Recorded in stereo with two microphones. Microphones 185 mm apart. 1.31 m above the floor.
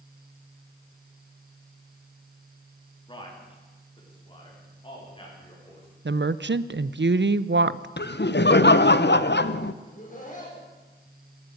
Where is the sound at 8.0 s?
65° left (ahead or behind), 0.7 m.